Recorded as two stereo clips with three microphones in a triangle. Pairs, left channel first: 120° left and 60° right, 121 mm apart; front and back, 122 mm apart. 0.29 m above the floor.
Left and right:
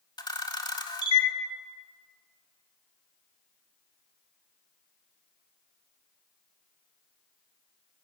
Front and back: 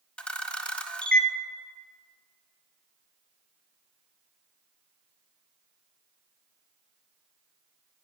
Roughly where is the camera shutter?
Left.